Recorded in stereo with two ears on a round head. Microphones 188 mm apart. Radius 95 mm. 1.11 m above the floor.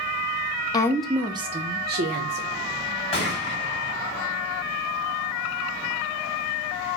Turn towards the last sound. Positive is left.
turn(degrees=30)  # may be behind; listen again after turning